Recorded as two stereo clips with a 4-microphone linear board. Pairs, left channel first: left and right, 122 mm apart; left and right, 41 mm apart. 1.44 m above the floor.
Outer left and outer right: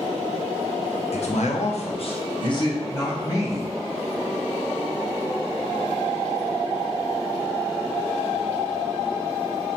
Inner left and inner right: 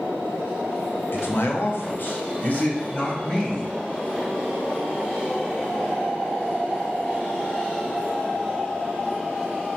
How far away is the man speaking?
About 0.5 m.